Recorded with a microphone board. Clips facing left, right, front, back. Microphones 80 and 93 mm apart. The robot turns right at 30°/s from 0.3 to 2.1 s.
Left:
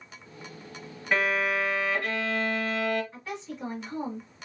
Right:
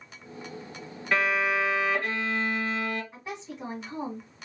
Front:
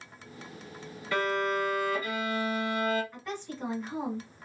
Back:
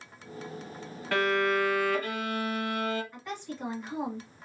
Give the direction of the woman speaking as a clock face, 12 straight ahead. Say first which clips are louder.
Left 1 dB, even; 3 o'clock.